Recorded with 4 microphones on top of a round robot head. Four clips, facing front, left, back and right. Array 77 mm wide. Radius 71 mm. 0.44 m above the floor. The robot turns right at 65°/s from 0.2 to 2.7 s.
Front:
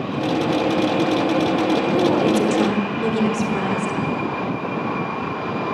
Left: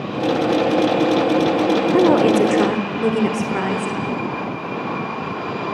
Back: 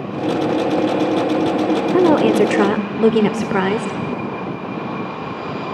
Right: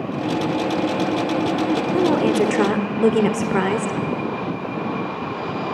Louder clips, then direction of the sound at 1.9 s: Left 4 dB, back 7 dB; 145° left.